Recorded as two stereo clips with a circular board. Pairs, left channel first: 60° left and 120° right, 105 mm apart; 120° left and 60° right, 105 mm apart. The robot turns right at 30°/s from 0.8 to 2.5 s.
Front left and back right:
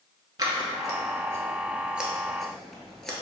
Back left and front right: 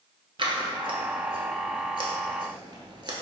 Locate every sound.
0.4 s scissors: 75° right, 0.7 m; by 3.1 s 25° right, 0.7 m